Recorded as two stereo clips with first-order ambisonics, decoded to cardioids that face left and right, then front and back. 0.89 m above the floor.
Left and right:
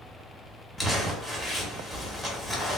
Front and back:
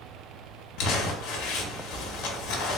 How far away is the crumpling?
About 0.7 m.